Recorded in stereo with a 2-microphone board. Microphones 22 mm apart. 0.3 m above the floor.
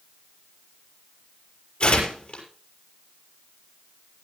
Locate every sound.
1.8 s tearing paper: 55° left (ahead or behind), 6 m